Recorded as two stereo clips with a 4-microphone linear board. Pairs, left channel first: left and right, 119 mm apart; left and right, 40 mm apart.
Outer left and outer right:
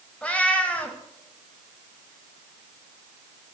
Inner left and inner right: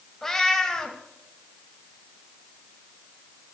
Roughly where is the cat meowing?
Centre.